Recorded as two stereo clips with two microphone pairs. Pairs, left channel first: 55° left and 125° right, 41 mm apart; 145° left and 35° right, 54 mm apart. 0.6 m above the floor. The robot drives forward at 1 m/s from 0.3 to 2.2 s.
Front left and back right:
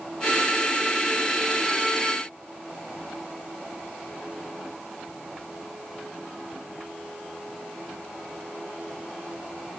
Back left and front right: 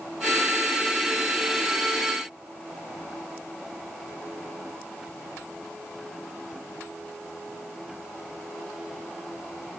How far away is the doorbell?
No doorbell in this recording.